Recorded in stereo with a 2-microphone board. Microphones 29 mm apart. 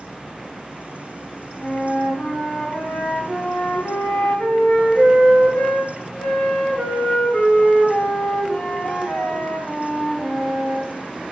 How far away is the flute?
About 3 m.